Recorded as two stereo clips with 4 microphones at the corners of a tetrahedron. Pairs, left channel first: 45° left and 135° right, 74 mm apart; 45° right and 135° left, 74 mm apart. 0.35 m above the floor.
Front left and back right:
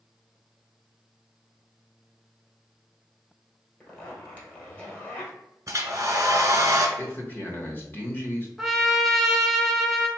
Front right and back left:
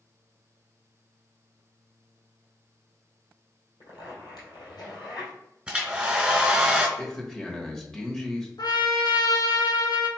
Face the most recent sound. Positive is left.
turn(degrees=-45)